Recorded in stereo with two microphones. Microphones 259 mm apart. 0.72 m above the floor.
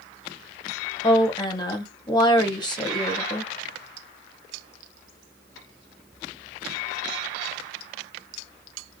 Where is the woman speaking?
15° left (ahead or behind), 1.2 m.